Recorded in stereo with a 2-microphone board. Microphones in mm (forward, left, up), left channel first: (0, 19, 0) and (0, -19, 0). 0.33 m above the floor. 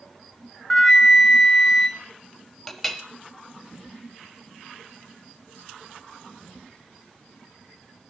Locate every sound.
0.7 s a flute: 15° left (ahead or behind), 0.5 m
2.7 s a clink: 5° left (ahead or behind), 0.7 m